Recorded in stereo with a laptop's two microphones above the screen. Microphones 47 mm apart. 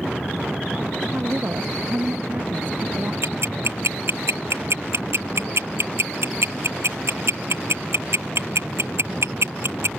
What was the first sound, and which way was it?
A woman speaking, 50° right (ahead or behind).